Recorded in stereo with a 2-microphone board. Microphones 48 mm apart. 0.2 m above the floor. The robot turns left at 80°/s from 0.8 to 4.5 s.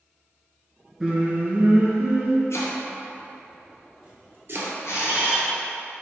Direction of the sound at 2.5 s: 70° left (ahead or behind).